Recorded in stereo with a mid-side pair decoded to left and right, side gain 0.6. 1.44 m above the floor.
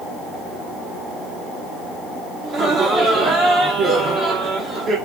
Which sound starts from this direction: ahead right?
Laughter, at 2.4 s.